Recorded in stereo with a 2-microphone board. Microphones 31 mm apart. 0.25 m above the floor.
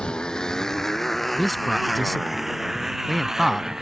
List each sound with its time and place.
0.0 s a motorcycle: 30° left (ahead or behind); by 3.8 s 15° right (ahead or behind)
1.4 s a man speaking: 5° left (ahead or behind)